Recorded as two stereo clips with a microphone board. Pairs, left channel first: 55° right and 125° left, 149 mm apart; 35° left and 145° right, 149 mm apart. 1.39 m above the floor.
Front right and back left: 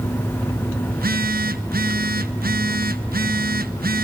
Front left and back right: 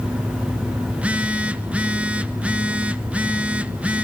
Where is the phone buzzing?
135° left, 1.2 m.